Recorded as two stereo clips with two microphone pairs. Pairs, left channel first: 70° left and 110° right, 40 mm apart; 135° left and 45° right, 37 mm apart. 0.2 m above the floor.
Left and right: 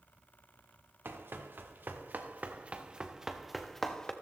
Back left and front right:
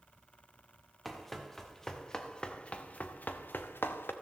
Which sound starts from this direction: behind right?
Running footsteps, at 1.1 s.